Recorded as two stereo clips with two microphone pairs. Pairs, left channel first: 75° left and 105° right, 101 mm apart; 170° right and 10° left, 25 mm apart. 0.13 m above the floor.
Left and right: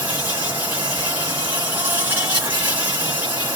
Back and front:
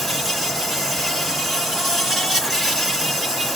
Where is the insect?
55° right, 1.9 m.